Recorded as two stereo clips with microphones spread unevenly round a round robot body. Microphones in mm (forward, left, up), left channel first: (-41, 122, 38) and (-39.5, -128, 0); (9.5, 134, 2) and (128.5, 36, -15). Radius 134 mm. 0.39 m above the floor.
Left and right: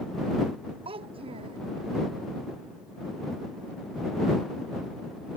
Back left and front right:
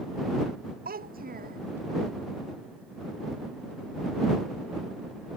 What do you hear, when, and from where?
0.8 s a child speaking: 20° right